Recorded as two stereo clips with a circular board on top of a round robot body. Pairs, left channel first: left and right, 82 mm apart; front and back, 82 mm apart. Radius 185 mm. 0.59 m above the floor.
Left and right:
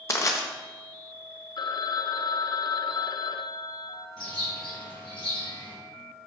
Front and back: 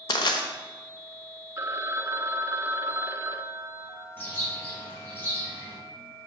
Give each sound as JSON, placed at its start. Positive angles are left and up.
{"t": 0.1, "sound": "crushing", "azimuth_deg": 35, "distance_m": 0.9}
{"t": 1.6, "sound": "a phone ringing", "azimuth_deg": 125, "distance_m": 0.6}
{"t": 4.2, "sound": "a bird", "azimuth_deg": 65, "distance_m": 3.0}